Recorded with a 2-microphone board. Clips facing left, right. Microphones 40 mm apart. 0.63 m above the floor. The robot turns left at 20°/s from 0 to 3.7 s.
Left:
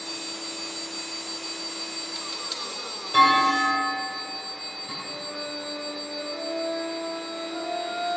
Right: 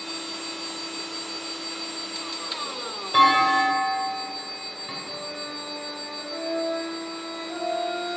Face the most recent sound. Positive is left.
turn(degrees=-35)  # may be behind; listen again after turning